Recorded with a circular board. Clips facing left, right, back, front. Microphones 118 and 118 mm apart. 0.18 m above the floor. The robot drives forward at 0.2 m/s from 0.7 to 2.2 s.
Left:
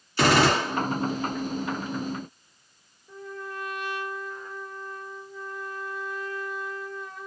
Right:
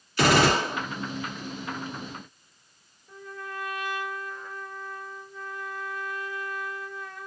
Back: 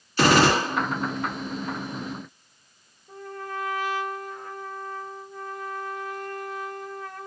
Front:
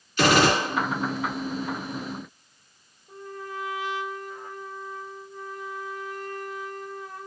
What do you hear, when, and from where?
0.2 s a gunshot: 140° left, 1.8 m
3.1 s a trumpet: 165° left, 1.9 m